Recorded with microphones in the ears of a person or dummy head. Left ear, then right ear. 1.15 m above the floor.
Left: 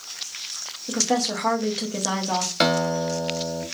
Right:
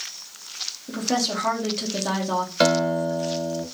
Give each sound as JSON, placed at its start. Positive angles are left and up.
{"t": 0.9, "sound": "a woman speaking", "side_deg": 20, "distance_m": 0.9}
{"t": 2.6, "sound": "a guitar", "side_deg": 15, "distance_m": 0.7}